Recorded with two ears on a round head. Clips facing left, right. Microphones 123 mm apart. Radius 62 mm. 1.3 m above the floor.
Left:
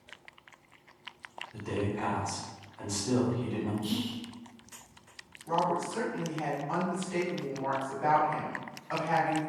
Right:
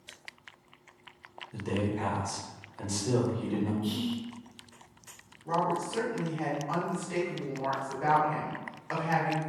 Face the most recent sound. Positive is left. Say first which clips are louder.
# even
turn(degrees=-75)  # may be behind; listen again after turning